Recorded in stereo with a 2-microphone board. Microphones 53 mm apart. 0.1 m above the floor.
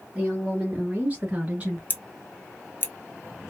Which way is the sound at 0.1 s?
20° right (ahead or behind).